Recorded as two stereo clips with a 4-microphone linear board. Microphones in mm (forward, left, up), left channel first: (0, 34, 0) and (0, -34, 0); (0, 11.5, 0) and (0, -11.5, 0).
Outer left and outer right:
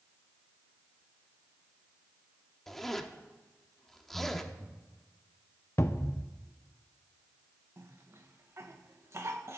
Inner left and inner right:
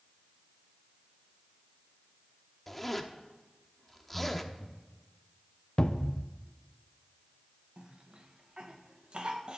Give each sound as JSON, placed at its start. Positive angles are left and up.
{"t": 2.7, "sound": "a zipper", "side_deg": 5, "distance_m": 1.0}
{"t": 4.1, "sound": "breathing", "side_deg": -25, "distance_m": 2.5}
{"t": 5.8, "sound": "a cupboard door", "side_deg": 45, "distance_m": 0.7}
{"t": 7.8, "sound": "a cough", "side_deg": -45, "distance_m": 1.7}